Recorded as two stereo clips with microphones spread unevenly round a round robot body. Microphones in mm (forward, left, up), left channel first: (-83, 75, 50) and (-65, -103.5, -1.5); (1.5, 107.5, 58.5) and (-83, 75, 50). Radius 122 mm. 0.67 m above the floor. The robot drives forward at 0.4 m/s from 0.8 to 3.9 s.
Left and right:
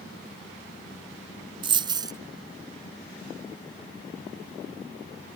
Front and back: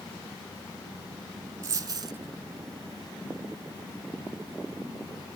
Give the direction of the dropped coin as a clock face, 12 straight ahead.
5 o'clock.